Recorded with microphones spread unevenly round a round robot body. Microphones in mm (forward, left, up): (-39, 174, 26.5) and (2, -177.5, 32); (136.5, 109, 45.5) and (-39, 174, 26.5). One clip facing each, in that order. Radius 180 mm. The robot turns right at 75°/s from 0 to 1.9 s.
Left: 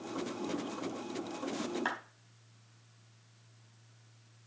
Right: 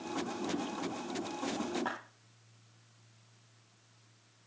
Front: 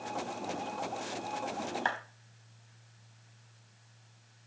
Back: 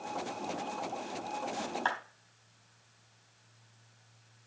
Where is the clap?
50° left, 4 m; by 2.0 s 55° left, 4 m.